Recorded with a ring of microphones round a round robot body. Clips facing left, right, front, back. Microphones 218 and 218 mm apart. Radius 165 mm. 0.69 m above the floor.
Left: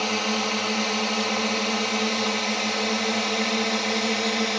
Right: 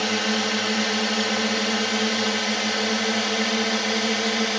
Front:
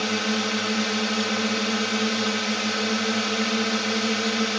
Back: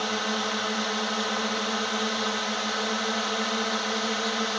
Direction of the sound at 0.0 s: 25° right.